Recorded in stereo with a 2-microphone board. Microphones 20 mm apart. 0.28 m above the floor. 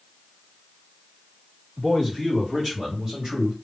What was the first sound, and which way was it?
A man speaking, 10° right (ahead or behind).